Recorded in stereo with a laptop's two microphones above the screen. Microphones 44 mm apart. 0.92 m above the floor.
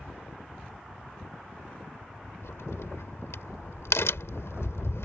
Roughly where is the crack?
Left.